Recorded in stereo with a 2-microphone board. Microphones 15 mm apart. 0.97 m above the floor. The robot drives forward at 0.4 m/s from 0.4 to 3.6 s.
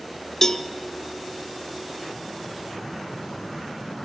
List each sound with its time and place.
0.4 s a cowbell: 35° left (ahead or behind), 0.5 m; by 0.7 s 30° left (ahead or behind), 0.6 m